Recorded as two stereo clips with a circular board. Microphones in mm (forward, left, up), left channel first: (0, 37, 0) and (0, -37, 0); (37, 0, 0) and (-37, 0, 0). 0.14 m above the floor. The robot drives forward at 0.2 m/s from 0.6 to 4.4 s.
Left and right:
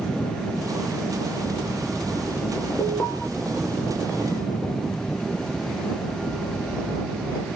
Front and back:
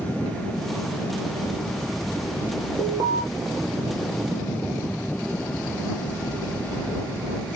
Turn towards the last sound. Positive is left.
turn(degrees=165)